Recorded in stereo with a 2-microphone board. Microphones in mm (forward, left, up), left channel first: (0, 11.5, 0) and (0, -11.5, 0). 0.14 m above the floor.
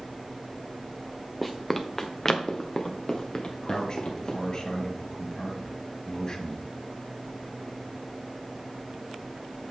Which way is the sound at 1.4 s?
Centre (ahead or behind).